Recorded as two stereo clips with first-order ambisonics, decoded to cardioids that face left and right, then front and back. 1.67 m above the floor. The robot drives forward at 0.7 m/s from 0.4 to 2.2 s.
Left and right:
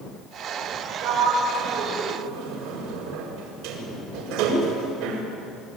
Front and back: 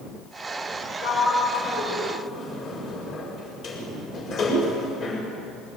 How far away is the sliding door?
About 7.5 m.